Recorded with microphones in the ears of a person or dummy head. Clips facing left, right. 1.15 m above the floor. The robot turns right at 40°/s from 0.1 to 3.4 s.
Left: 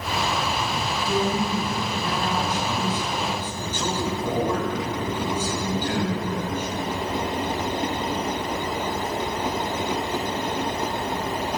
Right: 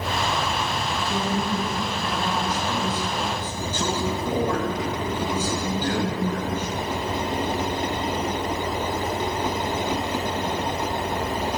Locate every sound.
0.8 s a man speaking: 65° left, 5.5 m; by 6.7 s 170° left, 5.5 m